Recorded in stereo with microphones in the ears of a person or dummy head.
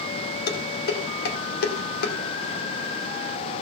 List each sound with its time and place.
0.5 s dishes clattering: 60° left (ahead or behind), 2 m